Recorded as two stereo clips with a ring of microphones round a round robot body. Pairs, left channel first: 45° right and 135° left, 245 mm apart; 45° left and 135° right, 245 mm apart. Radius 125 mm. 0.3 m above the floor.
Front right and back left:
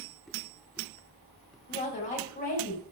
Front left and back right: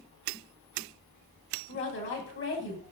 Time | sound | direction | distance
1.7 | a woman speaking | 10° left | 2 m